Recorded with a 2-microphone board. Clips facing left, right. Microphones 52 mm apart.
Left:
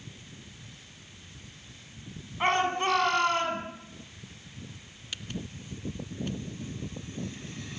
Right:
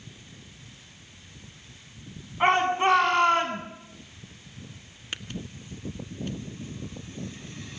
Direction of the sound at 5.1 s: 40° right (ahead or behind).